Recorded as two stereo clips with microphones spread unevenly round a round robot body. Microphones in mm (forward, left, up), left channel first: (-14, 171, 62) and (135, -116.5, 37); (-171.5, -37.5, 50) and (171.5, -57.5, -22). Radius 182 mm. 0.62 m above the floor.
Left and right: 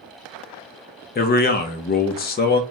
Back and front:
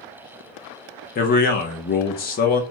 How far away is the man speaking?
About 0.5 m.